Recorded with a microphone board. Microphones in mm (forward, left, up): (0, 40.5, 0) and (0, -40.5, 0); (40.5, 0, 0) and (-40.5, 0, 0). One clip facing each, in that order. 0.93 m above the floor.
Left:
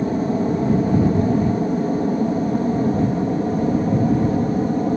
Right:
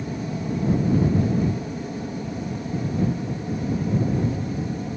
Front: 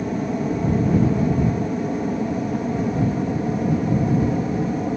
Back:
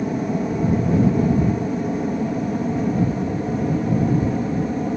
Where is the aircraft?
90° left; by 5.0 s 85° left.